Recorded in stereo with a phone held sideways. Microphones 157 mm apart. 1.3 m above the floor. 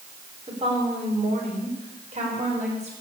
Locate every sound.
0.5 s a woman speaking: 35° right (ahead or behind), 4 m; by 2.9 s 45° right (ahead or behind), 5.5 m